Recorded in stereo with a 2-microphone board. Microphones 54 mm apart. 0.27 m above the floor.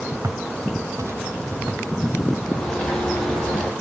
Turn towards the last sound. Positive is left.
turn(degrees=15)  # may be behind; listen again after turning